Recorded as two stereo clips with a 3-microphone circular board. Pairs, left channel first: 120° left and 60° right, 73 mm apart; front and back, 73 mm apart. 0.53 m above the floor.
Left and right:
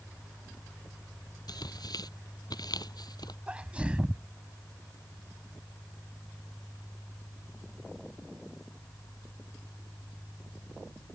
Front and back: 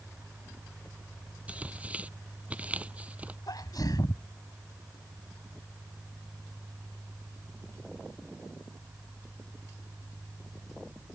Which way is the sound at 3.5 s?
15° left.